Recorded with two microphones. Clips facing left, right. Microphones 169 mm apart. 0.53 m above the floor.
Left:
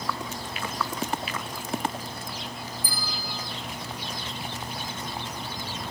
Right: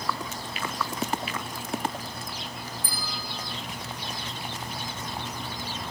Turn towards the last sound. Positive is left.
turn(degrees=-65)  # may be behind; listen again after turning